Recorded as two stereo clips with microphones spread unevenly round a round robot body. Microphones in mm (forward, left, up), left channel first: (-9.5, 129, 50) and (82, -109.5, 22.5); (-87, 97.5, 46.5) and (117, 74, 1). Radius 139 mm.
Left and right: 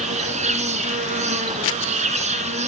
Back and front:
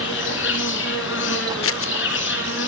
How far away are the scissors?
About 0.9 m.